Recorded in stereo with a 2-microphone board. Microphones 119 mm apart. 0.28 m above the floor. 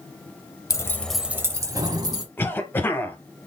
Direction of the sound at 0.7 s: 25° left (ahead or behind).